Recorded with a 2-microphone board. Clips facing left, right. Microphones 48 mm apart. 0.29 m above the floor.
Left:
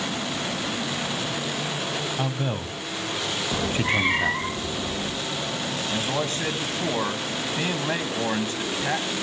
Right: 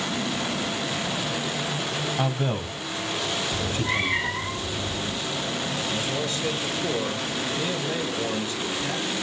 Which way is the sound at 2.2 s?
10° right (ahead or behind).